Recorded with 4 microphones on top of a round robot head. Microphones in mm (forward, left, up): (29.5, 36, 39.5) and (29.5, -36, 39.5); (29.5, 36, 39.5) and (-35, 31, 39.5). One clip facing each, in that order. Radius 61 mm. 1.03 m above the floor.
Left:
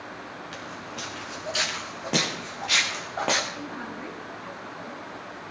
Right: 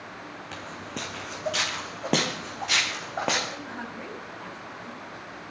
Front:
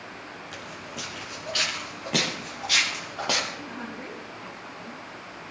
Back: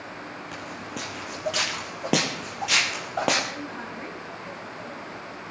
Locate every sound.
0.5 s footsteps: 120° right, 3.5 m; by 3.4 s 175° right, 3.5 m
3.5 s a woman speaking: 120° right, 5.5 m